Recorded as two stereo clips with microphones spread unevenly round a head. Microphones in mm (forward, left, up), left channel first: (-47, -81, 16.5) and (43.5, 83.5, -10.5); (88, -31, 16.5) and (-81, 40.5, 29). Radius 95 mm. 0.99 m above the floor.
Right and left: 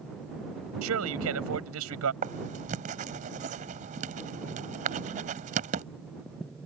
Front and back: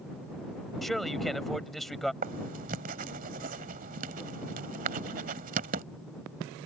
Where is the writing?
115° left.